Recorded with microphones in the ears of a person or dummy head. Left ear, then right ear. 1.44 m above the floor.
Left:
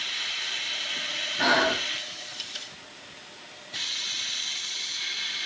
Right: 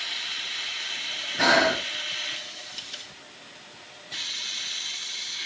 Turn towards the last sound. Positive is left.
turn(degrees=-65)  # may be behind; listen again after turning